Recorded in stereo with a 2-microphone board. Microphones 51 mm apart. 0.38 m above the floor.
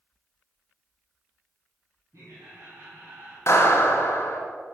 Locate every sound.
2.1 s laughter: 60° right (ahead or behind), 2.5 m; by 3.4 s 45° right (ahead or behind), 1.8 m
3.5 s a clap: 55° left (ahead or behind), 2 m